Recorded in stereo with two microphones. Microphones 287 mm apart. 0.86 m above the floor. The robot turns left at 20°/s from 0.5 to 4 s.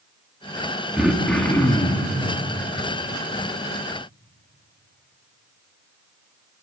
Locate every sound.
1.0 s throat clearing: 5° right (ahead or behind), 2.0 m; by 2.1 s 15° left (ahead or behind), 2.0 m